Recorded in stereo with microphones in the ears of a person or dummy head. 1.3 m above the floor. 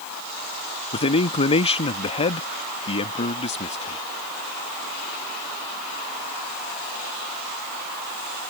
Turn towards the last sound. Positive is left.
turn(degrees=35)  # may be behind; listen again after turning